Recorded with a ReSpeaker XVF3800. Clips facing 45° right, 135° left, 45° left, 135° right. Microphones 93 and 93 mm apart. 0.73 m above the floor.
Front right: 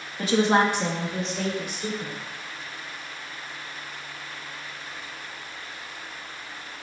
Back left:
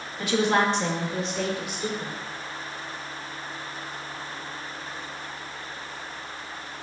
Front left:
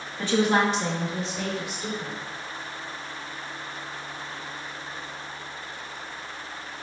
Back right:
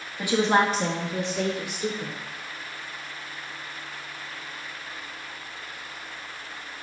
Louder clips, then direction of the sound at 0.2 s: Front right 2 dB, back right 1 dB; 55° right.